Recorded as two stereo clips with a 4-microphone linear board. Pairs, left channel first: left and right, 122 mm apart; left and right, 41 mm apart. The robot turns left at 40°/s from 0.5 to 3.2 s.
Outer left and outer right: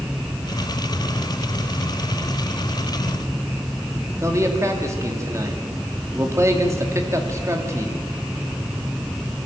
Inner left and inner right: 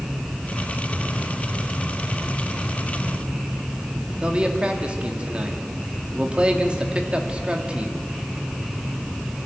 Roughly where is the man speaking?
Right.